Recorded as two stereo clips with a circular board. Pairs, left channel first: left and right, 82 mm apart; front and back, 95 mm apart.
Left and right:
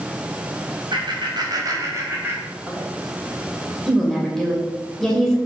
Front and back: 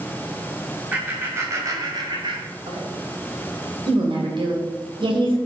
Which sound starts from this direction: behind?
A woman speaking, at 3.9 s.